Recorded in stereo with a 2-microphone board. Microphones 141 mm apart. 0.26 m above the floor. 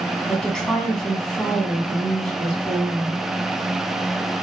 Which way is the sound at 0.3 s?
5° left (ahead or behind).